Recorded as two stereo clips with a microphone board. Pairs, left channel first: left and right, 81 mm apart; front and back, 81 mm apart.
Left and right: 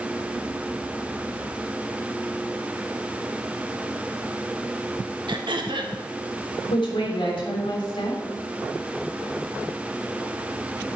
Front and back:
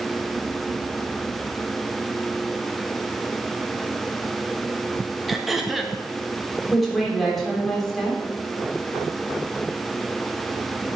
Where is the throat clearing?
90° right, 1.0 m.